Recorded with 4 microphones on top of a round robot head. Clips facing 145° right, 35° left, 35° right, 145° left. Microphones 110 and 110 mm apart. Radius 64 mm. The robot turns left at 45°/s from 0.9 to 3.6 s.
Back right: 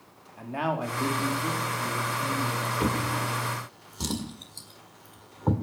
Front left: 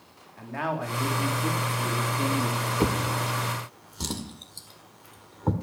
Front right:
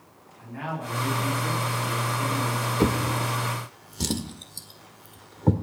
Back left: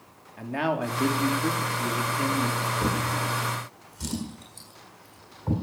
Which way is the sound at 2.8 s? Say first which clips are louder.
Front left 2 dB, front right 7 dB; 20° right.